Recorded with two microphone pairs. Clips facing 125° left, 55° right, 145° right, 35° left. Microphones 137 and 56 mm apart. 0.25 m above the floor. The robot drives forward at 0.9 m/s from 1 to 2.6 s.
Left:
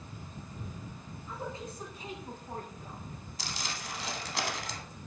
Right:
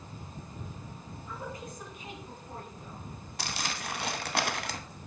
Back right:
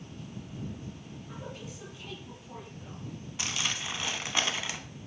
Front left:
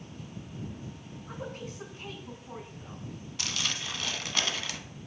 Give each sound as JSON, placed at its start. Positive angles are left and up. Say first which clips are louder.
{"t": 1.3, "sound": "a woman speaking", "louder": "left 1 dB, front left 4 dB", "azimuth_deg": 60, "distance_m": 2.5}
{"t": 3.4, "sound": "crumpling", "louder": "right 4 dB, back right 1 dB", "azimuth_deg": -75, "distance_m": 0.7}